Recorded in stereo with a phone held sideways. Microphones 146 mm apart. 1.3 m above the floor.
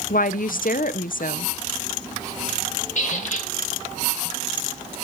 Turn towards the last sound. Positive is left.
turn(degrees=60)  # may be behind; listen again after turning